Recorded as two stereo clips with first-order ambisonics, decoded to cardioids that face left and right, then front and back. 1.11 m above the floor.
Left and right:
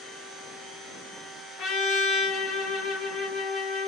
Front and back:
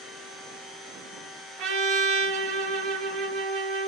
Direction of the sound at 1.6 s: 145° left.